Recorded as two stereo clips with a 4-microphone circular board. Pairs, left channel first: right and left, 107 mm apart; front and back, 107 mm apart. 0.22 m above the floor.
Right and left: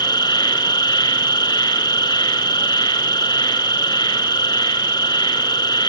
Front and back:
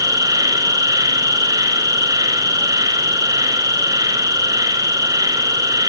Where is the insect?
130° right, 3 m.